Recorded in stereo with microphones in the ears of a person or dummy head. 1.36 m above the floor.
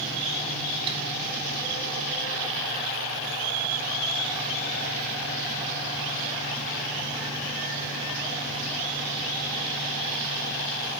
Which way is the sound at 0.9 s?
30° right (ahead or behind).